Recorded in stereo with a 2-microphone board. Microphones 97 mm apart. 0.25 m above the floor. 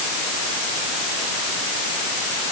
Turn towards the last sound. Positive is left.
No sound to turn to.